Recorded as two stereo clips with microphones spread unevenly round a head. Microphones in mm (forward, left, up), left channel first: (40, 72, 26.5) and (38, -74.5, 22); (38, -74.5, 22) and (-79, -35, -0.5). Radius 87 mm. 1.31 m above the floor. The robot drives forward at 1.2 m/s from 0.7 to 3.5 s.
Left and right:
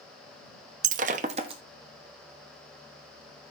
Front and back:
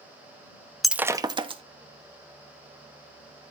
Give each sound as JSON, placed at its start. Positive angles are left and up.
{"t": 0.8, "sound": "breaking glass", "azimuth_deg": -95, "distance_m": 0.7}